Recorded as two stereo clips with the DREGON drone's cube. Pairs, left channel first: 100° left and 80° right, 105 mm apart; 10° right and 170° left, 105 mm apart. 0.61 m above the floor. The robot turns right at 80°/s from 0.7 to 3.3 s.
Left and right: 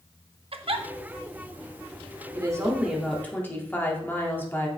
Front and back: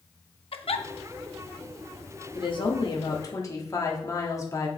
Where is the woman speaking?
40° right, 1.3 m; by 4.7 s 35° left, 1.3 m.